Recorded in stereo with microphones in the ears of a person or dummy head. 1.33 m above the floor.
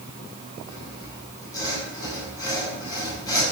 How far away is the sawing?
About 5.5 m.